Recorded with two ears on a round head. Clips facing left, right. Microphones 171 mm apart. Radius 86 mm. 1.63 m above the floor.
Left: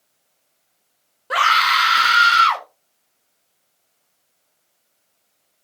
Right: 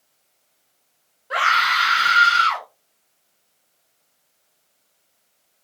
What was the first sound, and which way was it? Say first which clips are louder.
A scream: left 3 dB; 55° left (ahead or behind).